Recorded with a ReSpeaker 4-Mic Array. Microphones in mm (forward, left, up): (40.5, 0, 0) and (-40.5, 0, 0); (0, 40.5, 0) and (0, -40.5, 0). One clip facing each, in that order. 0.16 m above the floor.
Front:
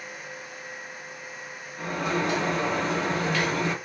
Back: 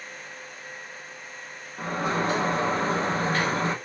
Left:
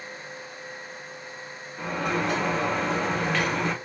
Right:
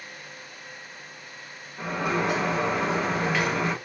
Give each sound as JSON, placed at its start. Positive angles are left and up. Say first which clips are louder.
{"t": 1.8, "sound": "a sliding door", "louder": "back 1 dB, right 1 dB", "azimuth_deg": -170, "distance_m": 0.7}